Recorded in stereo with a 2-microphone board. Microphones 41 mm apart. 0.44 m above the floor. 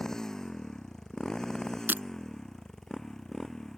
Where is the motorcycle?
15° left (ahead or behind); by 3.8 s 10° left (ahead or behind).